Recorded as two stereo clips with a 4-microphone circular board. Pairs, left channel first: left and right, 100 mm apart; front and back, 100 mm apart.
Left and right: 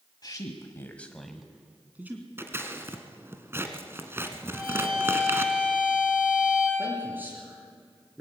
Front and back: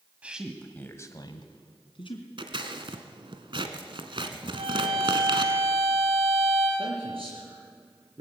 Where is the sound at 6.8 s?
160° right, 4 m.